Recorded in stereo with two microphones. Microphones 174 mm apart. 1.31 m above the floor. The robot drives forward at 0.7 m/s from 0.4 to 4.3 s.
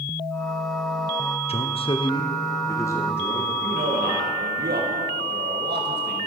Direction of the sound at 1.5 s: 35° left (ahead or behind).